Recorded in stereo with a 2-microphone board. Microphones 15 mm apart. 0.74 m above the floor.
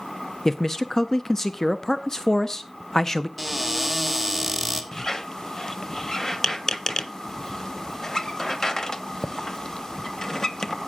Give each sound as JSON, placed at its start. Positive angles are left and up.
{"t": 0.5, "sound": "a man speaking", "side_deg": 30, "distance_m": 0.5}
{"t": 3.4, "sound": "a cupboard door", "side_deg": 10, "distance_m": 2.0}
{"t": 4.9, "sound": "a squeak", "side_deg": 40, "distance_m": 0.6}